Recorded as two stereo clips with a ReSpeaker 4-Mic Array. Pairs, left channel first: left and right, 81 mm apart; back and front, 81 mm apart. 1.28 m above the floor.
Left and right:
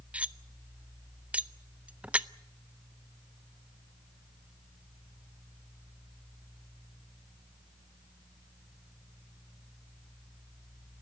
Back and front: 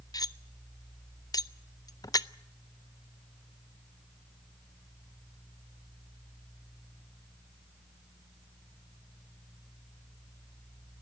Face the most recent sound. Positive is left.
turn(degrees=-160)